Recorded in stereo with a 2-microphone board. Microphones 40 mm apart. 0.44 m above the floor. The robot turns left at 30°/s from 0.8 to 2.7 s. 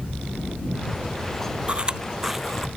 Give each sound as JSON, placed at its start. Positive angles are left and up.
{"t": 1.7, "sound": "chewing", "side_deg": -30}